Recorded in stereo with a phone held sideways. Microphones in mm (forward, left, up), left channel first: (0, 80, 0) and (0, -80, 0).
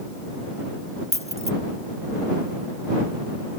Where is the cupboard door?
I don't hear a cupboard door.